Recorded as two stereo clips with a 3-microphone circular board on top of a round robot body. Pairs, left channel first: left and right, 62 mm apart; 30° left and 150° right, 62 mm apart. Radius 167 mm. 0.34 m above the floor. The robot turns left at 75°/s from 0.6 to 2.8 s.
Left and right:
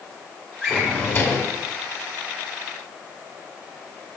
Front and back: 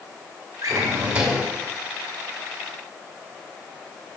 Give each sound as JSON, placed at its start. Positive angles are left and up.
{"t": 0.6, "sound": "a drawer", "azimuth_deg": 175, "distance_m": 2.0}